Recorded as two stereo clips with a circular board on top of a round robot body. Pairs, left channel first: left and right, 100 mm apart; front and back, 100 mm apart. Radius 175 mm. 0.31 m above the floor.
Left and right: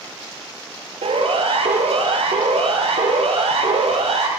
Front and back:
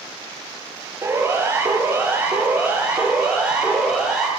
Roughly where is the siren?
Right.